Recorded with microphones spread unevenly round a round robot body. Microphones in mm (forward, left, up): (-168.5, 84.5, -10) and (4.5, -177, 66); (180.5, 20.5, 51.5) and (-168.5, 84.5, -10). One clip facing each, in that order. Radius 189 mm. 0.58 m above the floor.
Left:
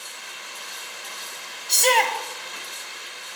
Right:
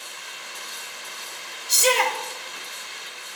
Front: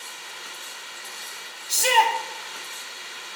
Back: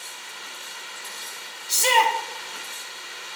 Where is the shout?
160° right, 1.0 m.